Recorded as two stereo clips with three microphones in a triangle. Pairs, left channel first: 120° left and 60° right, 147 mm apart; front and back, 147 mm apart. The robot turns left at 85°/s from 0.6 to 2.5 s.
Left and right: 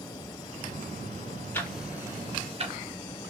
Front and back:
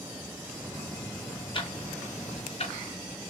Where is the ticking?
50° left, 0.6 m; by 2.8 s 30° right, 0.6 m.